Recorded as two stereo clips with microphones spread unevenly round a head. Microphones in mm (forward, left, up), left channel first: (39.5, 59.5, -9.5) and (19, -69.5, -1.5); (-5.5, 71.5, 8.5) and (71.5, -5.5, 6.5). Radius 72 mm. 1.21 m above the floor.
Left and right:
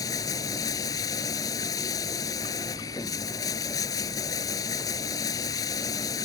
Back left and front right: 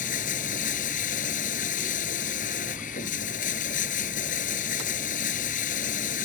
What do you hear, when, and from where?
0.0 s running water: 150° left